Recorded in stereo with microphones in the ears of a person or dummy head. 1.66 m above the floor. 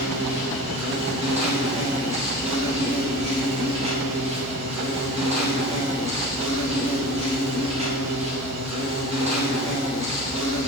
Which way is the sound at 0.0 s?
25° right (ahead or behind).